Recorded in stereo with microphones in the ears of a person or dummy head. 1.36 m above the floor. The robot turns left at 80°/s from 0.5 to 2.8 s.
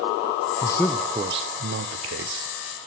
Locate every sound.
0.6 s a man speaking: 30° left, 0.9 m; by 2.5 s 125° right, 0.9 m